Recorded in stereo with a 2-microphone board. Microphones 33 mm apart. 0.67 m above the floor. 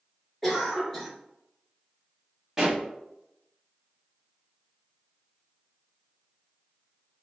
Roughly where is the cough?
Centre.